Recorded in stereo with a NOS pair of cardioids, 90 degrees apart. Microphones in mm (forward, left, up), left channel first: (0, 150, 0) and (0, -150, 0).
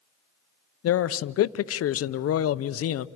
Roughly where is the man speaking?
Ahead left.